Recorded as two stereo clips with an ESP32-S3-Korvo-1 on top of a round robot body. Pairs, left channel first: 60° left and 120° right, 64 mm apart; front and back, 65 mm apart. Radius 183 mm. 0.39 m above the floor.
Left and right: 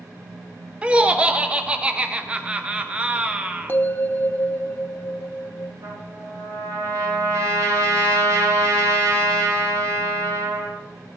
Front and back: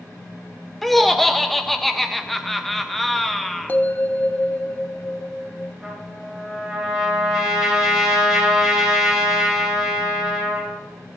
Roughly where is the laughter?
Right.